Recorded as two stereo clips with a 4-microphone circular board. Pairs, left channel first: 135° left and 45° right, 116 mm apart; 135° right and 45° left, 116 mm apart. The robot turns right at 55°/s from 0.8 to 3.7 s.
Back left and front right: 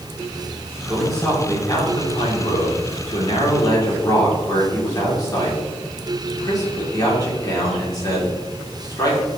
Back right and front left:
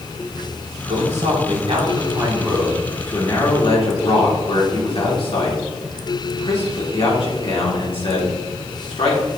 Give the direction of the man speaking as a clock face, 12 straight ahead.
11 o'clock.